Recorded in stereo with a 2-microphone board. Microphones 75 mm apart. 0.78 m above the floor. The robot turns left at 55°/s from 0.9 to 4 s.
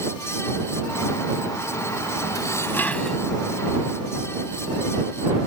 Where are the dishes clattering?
50° left; by 3.2 s 5° left.